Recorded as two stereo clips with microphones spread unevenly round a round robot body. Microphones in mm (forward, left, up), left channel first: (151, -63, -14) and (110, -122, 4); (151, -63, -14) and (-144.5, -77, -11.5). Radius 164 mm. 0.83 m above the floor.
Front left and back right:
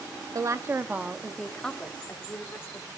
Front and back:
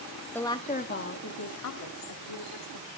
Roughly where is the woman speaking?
Right.